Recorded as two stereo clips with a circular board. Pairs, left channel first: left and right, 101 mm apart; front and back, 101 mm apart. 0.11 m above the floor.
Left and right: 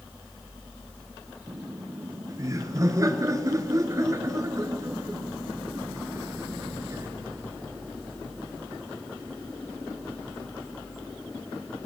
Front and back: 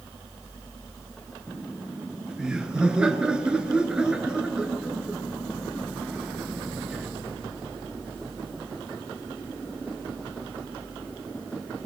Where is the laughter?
105° right, 1.7 m.